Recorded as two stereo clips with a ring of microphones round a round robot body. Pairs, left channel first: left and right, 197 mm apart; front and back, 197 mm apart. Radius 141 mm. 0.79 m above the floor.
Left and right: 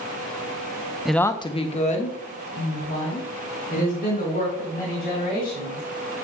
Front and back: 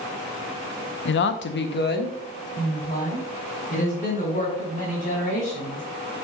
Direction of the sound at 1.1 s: 5° right.